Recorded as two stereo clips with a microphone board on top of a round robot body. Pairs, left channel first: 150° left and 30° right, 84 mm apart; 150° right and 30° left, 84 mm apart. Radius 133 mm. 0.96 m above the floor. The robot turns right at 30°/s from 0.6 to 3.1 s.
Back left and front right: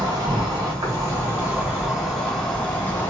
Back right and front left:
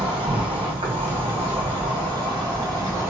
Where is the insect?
15° left, 1.6 m; by 3.1 s 90° left, 1.6 m.